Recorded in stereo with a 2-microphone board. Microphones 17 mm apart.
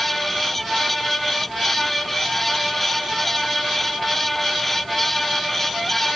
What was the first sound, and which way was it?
Only background noise.